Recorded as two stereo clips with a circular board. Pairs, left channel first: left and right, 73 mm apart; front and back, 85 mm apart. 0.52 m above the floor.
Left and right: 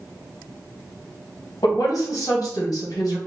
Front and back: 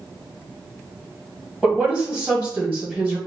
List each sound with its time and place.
1.6 s a woman speaking: 110° left, 2.0 m